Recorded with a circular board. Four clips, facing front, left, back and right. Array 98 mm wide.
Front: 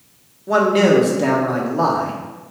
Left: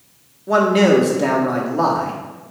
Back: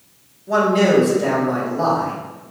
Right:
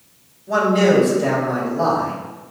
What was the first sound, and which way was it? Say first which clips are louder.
A man speaking: left 2 dB, front 2 dB; 55° left.